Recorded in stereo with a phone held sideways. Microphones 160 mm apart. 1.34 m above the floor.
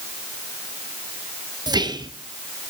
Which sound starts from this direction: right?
Whispering, at 1.7 s.